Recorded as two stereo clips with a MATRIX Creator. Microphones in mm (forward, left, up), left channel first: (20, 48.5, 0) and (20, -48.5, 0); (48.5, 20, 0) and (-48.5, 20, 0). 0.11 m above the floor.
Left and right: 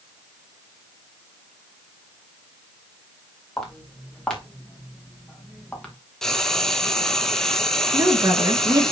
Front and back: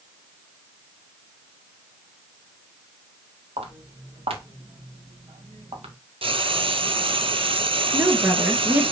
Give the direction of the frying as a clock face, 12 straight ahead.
6 o'clock.